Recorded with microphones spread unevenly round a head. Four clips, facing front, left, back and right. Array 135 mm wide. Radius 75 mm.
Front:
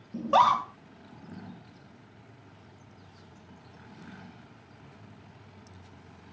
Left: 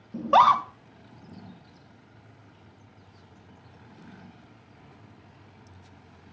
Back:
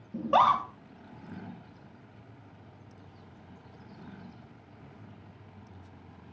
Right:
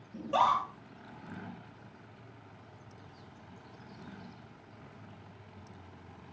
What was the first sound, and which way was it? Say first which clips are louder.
A scream: left 9 dB, front 1 dB; 125° left.